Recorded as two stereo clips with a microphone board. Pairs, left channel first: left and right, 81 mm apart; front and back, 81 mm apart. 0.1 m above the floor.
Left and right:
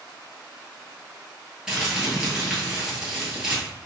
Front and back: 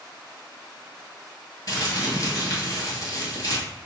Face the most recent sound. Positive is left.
turn(degrees=-10)